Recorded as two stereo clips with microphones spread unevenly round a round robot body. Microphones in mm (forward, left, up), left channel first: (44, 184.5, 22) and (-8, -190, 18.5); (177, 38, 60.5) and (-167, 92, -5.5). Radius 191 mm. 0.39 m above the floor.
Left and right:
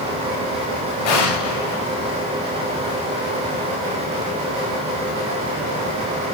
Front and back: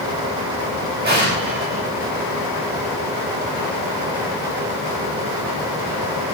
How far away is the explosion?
About 9 m.